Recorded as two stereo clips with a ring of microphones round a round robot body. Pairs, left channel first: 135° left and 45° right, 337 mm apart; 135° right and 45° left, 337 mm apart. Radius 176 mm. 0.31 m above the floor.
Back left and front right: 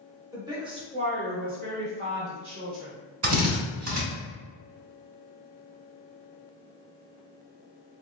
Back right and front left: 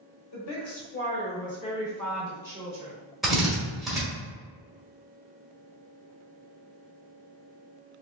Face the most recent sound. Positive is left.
turn(degrees=-45)